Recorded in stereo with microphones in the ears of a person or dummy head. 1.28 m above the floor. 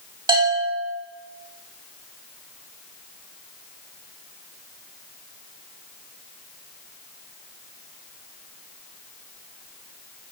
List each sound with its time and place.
0.3 s a bell: 25° right (ahead or behind), 1.9 m